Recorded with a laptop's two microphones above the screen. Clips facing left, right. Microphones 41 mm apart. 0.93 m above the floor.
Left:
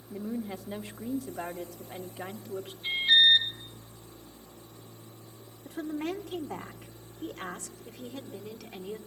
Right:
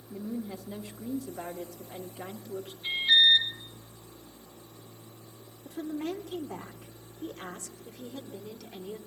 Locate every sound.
0.1 s a woman speaking: 55° left (ahead or behind), 1.5 m
2.8 s an alarm: 10° left (ahead or behind), 5 m
5.7 s a woman speaking: 60° left (ahead or behind), 2.0 m